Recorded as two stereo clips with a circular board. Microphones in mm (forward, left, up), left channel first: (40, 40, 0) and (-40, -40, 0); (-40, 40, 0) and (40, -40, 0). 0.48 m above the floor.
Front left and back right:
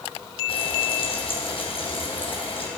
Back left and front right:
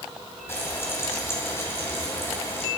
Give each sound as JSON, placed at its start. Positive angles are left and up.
{"t": 0.5, "sound": "frying", "azimuth_deg": 70, "distance_m": 3.0}